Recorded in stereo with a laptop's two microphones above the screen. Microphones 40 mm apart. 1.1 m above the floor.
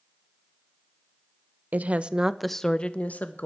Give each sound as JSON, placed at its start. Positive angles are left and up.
{"t": 1.7, "sound": "a woman speaking", "side_deg": -45, "distance_m": 0.9}